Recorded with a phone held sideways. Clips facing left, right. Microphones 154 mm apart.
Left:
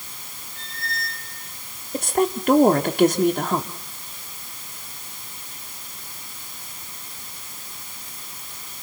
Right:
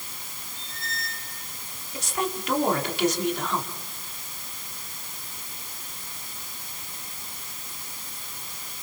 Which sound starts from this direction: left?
A woman speaking, at 1.9 s.